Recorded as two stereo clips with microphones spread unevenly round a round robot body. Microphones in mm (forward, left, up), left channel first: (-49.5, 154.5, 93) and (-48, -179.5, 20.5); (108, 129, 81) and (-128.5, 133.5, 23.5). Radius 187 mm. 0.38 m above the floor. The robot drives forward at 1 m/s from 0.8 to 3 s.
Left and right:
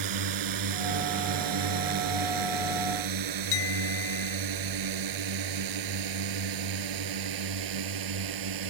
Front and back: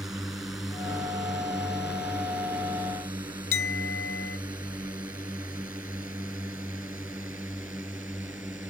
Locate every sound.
0.0 s a drone: 95° right
3.5 s a clink: 35° left